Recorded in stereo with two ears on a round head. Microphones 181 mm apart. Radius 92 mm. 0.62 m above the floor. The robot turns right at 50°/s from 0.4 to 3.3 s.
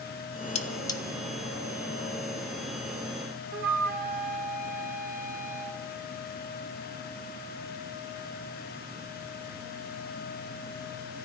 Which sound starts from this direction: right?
A flute, at 3.5 s.